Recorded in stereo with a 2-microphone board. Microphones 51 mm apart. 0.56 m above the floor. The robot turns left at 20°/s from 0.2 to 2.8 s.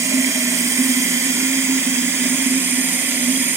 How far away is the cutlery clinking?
I don't hear cutlery clinking.